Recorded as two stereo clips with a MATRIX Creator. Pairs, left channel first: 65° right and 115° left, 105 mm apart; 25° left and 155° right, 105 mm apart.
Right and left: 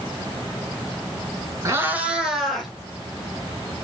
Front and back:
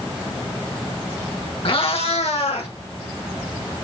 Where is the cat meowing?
55° left, 0.9 m; by 2.7 s 20° left, 2 m.